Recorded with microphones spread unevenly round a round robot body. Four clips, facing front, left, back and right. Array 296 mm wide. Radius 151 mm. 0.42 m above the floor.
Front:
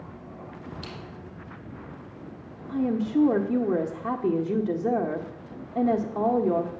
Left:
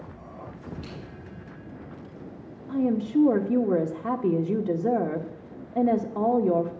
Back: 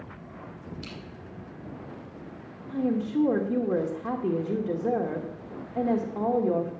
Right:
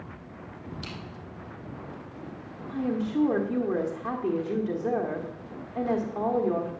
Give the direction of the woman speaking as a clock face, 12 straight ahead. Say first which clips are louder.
Left 4 dB, front 2 dB; 10 o'clock.